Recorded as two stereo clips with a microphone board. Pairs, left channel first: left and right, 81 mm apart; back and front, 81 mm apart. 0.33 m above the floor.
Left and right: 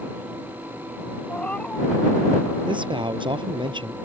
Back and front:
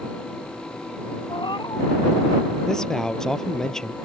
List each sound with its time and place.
1.3 s a cat meowing: 165° left
2.7 s a man speaking: 95° right